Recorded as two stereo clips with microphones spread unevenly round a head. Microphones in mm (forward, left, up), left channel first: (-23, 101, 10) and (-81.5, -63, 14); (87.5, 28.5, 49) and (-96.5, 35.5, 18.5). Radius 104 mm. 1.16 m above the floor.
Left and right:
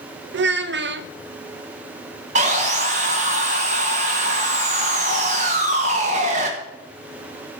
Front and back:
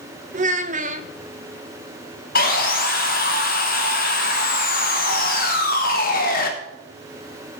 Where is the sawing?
50° right, 1.3 m.